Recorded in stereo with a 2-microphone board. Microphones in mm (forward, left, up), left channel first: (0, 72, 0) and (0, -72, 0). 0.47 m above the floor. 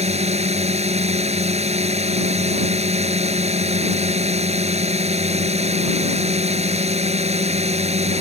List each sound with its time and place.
0.0 s a drone: 45° right (ahead or behind)